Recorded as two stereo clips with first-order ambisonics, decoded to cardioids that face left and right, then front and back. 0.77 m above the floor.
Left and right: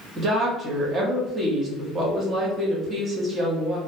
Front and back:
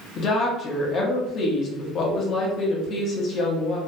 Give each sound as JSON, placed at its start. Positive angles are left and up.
{"t": 0.2, "sound": "a woman speaking", "azimuth_deg": -30, "distance_m": 0.8}